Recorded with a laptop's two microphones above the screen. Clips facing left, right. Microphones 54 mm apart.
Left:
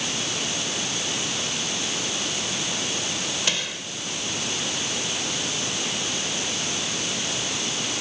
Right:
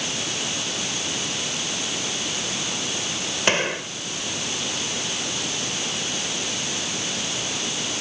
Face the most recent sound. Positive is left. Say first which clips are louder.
# right 7 dB
turn(degrees=-40)  # may be behind; listen again after turning